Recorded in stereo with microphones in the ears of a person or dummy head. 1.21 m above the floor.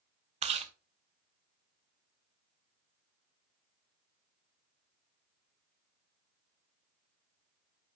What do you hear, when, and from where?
0.4 s chewing: 35° right (ahead or behind), 0.9 m